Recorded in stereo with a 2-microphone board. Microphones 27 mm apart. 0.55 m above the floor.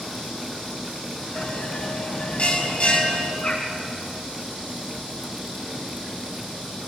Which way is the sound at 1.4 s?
45° left (ahead or behind).